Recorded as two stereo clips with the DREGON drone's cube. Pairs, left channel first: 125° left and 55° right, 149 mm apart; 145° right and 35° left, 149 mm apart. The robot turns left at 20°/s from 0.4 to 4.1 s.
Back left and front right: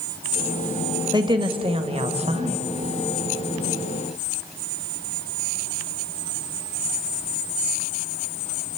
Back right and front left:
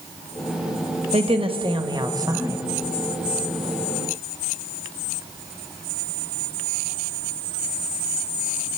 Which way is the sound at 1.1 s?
Straight ahead.